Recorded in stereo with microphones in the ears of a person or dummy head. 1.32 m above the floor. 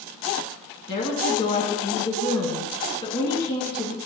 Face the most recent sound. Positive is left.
turn(degrees=35)  # may be behind; listen again after turning